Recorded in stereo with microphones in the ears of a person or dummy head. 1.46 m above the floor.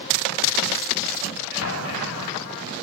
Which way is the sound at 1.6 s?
85° left.